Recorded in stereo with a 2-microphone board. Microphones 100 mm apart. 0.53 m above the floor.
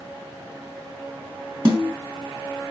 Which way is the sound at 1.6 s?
50° right (ahead or behind).